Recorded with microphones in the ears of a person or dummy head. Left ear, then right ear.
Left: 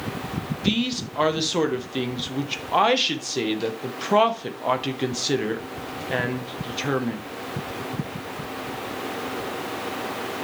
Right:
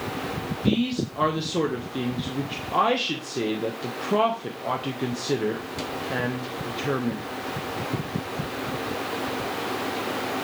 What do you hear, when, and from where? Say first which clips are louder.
0.6 s a man speaking: left 1 dB; 30° left (ahead or behind), 1.0 m